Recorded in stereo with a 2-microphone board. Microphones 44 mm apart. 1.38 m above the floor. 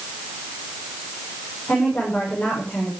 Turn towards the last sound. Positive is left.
turn(degrees=35)  # may be behind; listen again after turning